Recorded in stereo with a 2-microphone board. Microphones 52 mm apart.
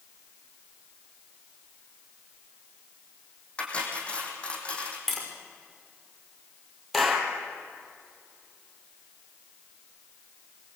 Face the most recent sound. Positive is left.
turn(degrees=5)  # may be behind; listen again after turning